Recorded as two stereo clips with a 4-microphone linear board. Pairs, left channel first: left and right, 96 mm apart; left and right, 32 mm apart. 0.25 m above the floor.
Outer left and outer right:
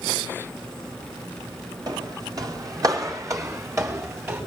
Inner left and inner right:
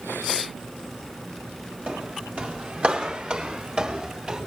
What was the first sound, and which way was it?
Footsteps, 50° right (ahead or behind).